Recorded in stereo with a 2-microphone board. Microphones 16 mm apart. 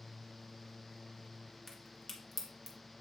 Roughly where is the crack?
Centre.